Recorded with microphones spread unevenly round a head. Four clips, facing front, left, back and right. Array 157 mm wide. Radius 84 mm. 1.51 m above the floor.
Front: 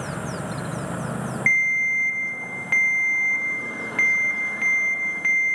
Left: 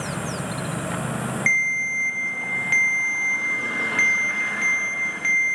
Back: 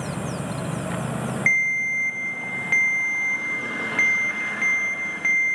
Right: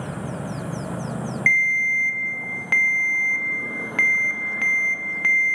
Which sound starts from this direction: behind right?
A ringtone, at 1.5 s.